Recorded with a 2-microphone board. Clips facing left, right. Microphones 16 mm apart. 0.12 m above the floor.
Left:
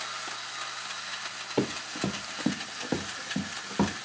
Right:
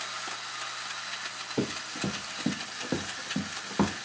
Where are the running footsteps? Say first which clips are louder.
Left 2 dB; 85° left, 0.8 m; by 3.9 s 15° right (ahead or behind), 1.0 m.